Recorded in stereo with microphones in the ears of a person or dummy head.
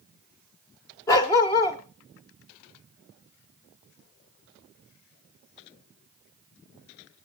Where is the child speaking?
No child speaking in this recording.